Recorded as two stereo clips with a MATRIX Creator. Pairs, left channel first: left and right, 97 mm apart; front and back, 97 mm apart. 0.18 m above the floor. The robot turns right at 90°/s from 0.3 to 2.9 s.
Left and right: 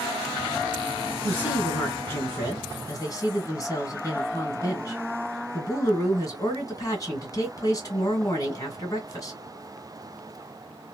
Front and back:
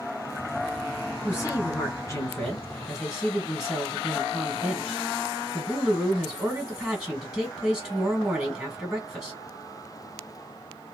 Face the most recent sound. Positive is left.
turn(degrees=95)